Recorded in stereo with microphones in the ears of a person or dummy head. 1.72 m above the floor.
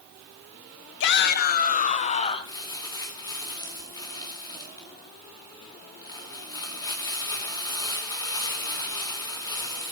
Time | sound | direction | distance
1.0 | a shout | 70° left (ahead or behind) | 1.3 m
2.5 | crumpling | 20° left (ahead or behind) | 2.5 m